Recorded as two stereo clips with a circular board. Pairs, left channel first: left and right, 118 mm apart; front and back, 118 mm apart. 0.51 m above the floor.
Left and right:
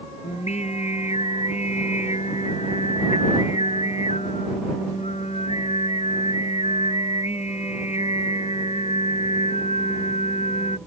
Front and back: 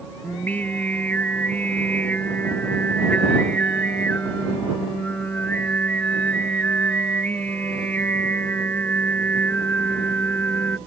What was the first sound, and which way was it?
Singing, 75° left.